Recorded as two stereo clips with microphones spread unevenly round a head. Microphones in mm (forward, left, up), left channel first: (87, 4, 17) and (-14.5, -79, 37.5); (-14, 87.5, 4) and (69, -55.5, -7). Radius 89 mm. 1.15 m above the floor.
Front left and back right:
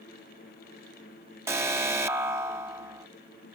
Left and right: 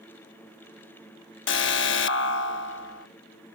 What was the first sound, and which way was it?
An alarm, 145° left.